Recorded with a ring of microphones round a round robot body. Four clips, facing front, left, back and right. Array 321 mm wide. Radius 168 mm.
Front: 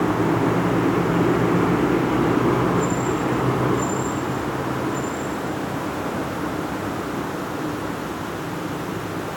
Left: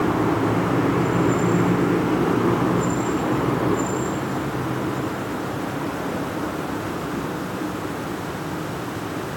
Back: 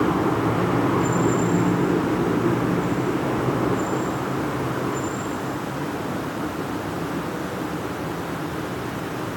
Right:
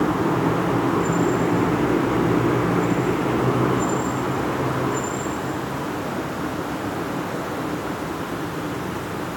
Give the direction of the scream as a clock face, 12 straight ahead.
No scream in this recording.